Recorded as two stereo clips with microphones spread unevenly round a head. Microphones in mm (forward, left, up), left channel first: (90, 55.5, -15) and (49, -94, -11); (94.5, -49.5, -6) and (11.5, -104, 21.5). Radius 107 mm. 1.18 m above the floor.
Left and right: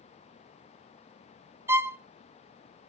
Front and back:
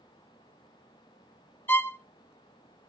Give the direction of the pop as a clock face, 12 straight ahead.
No pop in this recording.